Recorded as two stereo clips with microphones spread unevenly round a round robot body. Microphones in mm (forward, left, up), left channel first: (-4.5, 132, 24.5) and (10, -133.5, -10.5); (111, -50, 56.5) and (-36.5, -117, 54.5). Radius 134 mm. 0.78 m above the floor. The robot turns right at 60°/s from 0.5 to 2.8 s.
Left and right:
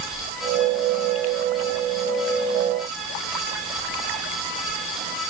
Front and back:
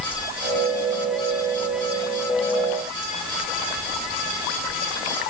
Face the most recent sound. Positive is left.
No sound to turn to.